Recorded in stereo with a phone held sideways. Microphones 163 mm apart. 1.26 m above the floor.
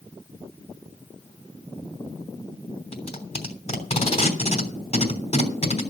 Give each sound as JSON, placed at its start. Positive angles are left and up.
{"t": 2.9, "sound": "tape being pulled", "side_deg": 45, "distance_m": 3.0}